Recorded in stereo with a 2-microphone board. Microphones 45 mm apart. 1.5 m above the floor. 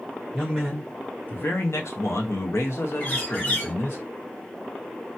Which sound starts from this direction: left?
A bird, at 3.0 s.